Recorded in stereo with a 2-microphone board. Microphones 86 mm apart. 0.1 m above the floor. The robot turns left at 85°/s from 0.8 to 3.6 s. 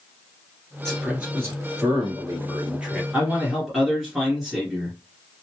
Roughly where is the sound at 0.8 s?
Ahead.